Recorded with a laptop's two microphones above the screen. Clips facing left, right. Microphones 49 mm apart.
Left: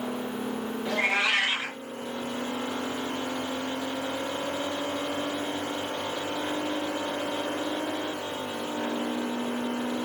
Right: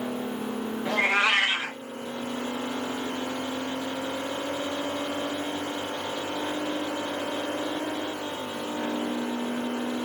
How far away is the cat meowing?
About 1.2 m.